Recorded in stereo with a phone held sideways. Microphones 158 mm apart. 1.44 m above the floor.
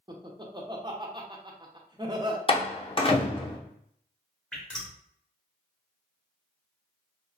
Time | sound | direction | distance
0.1 | laughter | 30° right (ahead or behind) | 0.8 m
2.5 | a door slam | 35° left (ahead or behind) | 0.6 m
4.5 | dripping | 5° left (ahead or behind) | 1.2 m